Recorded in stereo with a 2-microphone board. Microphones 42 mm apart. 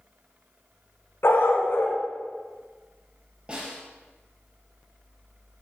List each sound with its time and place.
1.2 s a dog barking: 70° left (ahead or behind), 2.5 m
3.5 s a snare drum: 25° right (ahead or behind), 6 m